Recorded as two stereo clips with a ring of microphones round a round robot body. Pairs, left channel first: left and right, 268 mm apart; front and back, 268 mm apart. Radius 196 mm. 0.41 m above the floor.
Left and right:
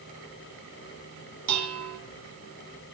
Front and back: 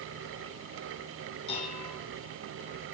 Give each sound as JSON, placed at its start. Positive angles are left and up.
{"t": 1.5, "sound": "dishes clattering", "azimuth_deg": -75, "distance_m": 3.0}